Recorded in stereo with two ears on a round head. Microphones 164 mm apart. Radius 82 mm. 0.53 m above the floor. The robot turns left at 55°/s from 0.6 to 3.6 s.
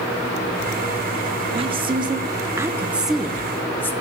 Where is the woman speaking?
30° right (ahead or behind), 0.8 m; by 3.9 s 10° left (ahead or behind), 0.8 m.